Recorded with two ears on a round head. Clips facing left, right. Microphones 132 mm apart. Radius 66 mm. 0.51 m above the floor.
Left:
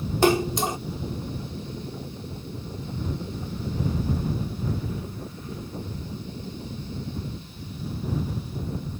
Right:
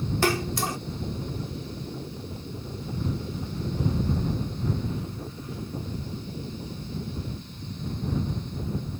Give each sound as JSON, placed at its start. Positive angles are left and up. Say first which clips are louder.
{"t": 0.2, "sound": "a splash", "louder": "left 7 dB", "side_deg": 20}